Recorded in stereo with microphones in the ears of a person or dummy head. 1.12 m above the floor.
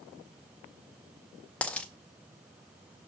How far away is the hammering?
I don't hear hammering.